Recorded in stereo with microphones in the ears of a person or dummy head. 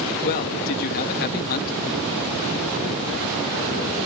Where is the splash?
I don't hear a splash.